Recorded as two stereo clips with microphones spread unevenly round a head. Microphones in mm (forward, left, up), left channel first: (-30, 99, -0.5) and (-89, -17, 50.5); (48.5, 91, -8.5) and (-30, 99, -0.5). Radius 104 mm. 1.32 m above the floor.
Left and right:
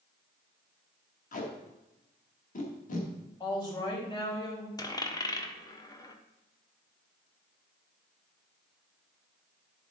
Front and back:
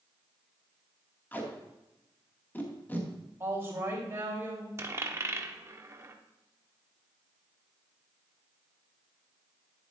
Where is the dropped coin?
135° left, 1.2 m.